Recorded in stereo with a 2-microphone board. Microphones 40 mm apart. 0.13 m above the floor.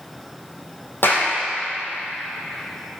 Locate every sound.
1.0 s a clap: 65° left (ahead or behind), 5 m